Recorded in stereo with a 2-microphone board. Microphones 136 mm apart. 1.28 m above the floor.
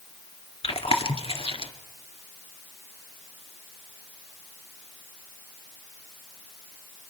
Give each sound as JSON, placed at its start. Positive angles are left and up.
{"t": 0.6, "sound": "chewing", "side_deg": 45, "distance_m": 1.8}